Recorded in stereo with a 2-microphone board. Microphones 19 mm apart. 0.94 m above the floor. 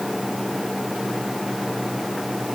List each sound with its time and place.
Only background noise.